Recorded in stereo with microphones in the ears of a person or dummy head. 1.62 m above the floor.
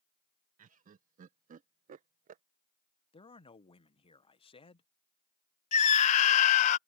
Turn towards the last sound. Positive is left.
turn(degrees=45)  # may be behind; listen again after turning